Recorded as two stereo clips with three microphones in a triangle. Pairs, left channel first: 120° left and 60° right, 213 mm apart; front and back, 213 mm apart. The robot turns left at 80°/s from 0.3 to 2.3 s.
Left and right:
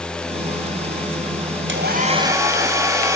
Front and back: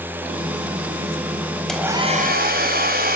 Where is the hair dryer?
85° right, 4.5 m; by 3.2 s 135° right, 4.5 m.